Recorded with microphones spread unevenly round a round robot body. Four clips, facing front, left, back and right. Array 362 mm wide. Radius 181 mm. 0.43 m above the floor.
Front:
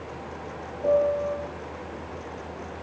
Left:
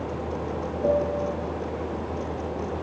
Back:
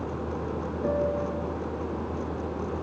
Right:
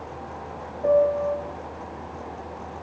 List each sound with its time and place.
0.8 s a piano: 140° left, 2.5 m